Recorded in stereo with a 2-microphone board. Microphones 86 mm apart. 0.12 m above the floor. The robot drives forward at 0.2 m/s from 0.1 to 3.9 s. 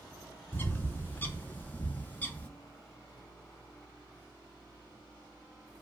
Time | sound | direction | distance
0.5 | a bird | 25° left (ahead or behind) | 0.5 m